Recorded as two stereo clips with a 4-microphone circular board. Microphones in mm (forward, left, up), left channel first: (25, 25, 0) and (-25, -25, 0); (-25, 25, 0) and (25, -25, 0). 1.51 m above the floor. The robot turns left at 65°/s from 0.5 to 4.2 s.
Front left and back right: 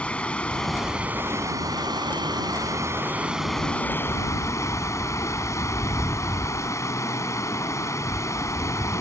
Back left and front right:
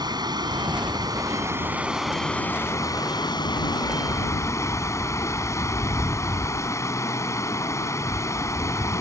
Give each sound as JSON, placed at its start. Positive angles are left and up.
{"t": 0.0, "sound": "running water", "azimuth_deg": -30}